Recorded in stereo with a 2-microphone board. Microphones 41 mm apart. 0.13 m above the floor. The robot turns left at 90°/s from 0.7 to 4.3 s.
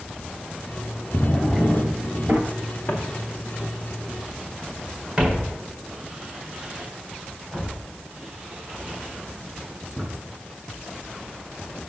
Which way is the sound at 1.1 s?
30° left.